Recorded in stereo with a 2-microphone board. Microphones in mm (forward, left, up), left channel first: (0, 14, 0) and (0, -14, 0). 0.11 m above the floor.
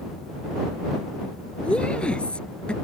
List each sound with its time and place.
1.6 s a woman speaking: 45° left (ahead or behind)